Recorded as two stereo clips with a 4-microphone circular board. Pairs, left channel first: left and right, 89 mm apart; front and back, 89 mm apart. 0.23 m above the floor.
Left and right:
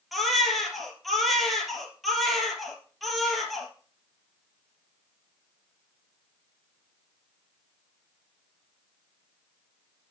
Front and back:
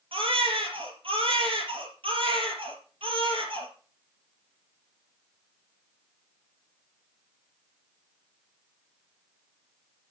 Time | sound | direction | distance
0.1 | a baby crying | straight behind | 3.5 m